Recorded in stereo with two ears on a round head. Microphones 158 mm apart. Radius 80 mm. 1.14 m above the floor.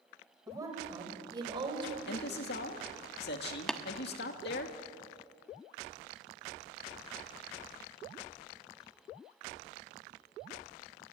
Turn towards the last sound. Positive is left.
turn(degrees=5)  # may be behind; listen again after turning